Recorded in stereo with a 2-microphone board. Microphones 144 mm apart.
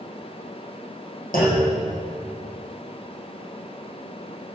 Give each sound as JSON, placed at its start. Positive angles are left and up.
{"t": 1.3, "sound": "a clunk", "side_deg": 75, "distance_m": 5.0}